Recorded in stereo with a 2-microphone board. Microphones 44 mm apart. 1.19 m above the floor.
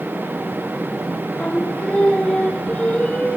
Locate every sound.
1.4 s singing: 30° left (ahead or behind), 3.5 m